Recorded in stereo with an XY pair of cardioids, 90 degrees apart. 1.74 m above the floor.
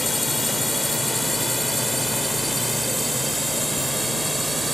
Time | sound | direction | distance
0.0 | a drone | 15° left | ?